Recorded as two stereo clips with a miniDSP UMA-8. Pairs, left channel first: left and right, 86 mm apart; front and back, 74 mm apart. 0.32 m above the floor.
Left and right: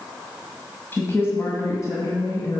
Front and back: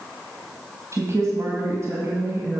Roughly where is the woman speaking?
Behind left.